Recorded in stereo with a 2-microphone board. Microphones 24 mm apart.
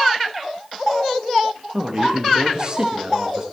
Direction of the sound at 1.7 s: 35° right (ahead or behind).